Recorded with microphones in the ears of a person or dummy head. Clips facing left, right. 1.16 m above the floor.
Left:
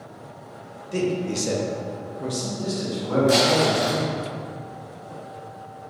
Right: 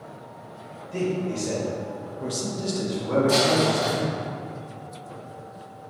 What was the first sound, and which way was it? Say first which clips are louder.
A man speaking: left 2 dB; 70° left (ahead or behind).